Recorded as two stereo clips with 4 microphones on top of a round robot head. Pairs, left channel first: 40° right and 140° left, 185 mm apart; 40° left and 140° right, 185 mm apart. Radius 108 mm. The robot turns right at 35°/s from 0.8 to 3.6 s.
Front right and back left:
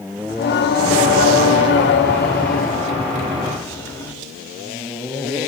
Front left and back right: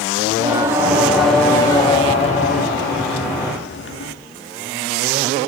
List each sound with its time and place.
0.3 s singing: 65° right, 0.8 m; by 4.1 s 35° left, 0.8 m